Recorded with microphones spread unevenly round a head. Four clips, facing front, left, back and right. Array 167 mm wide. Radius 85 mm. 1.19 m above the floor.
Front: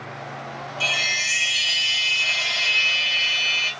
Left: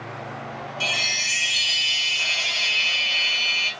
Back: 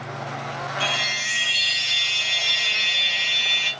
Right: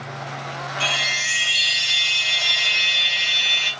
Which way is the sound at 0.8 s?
50° right.